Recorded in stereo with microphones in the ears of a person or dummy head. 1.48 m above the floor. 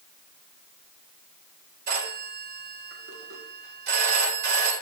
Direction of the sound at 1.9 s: 60° right (ahead or behind).